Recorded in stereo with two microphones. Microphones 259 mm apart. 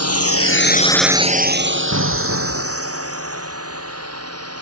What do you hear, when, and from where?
0.0 s a drone: 70° left (ahead or behind); by 4.6 s 65° right (ahead or behind)
1.9 s an explosion: 80° right